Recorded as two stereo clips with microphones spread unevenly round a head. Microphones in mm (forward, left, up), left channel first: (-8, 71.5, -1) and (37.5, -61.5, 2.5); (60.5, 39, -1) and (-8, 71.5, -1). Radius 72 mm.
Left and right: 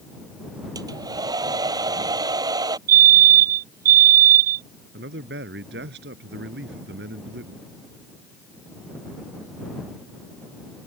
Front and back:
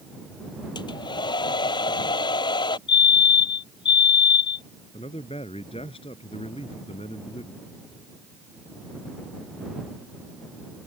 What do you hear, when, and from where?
0.8 s a hair dryer: 5° right
2.9 s a fire alarm: 55° right
4.9 s a man speaking: 65° right